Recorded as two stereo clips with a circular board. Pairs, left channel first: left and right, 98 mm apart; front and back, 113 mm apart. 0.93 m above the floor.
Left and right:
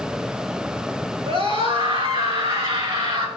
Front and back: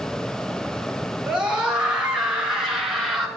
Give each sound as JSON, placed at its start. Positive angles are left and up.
{"t": 1.3, "sound": "a scream", "azimuth_deg": -95, "distance_m": 5.5}